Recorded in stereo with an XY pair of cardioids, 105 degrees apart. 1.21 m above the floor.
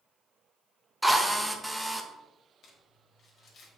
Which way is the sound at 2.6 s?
60° left.